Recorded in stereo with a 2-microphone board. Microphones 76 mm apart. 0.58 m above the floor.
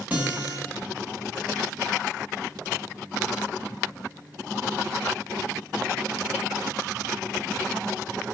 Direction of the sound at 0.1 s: 15° right (ahead or behind).